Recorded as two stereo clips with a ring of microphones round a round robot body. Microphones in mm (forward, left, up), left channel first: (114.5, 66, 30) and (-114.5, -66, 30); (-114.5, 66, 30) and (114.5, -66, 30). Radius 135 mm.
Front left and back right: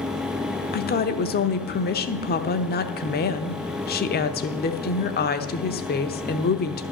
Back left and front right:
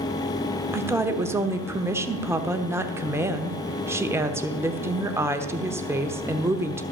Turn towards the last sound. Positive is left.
turn(degrees=45)